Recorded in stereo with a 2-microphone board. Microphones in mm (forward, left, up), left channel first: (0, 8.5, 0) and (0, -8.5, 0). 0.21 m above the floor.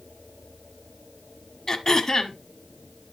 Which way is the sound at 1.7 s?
35° left (ahead or behind).